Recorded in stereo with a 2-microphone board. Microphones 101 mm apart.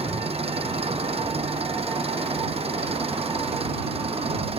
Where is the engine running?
75° right (ahead or behind).